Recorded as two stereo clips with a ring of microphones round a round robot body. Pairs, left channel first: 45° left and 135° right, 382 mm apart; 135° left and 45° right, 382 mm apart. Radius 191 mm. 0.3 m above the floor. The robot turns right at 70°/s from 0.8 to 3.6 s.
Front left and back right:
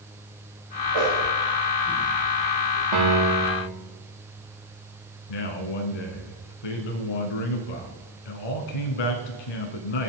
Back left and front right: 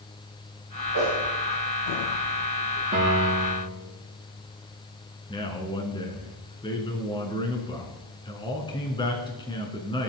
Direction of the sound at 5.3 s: 55° left.